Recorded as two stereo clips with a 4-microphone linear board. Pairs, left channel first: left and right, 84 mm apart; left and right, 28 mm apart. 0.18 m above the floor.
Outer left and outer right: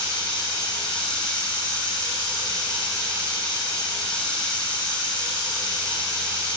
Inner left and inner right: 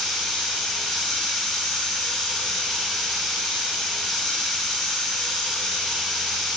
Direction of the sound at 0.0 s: 10° left (ahead or behind).